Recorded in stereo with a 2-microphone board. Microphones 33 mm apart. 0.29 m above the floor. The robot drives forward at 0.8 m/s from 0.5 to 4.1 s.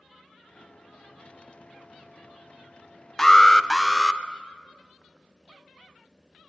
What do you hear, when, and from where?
3.2 s an alarm: 15° left (ahead or behind), 0.7 m; by 4.2 s 10° left (ahead or behind), 1.3 m